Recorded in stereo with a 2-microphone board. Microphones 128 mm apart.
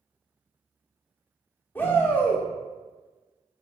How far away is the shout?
About 1.4 m.